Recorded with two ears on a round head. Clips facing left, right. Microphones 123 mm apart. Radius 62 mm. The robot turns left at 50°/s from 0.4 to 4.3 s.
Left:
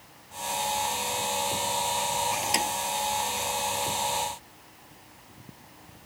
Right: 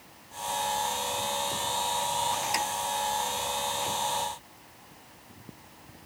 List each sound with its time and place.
2.4 s a thud: 25° left (ahead or behind); by 2.7 s 40° left (ahead or behind)